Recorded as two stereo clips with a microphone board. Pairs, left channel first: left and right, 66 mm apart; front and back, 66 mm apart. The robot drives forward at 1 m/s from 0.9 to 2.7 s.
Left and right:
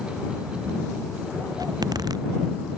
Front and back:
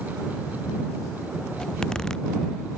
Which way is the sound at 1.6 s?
80° right.